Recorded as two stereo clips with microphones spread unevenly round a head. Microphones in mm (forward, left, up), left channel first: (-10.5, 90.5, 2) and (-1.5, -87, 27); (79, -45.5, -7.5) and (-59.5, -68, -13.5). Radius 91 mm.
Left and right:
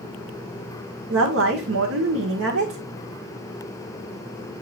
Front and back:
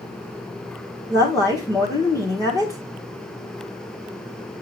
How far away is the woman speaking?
About 1.4 m.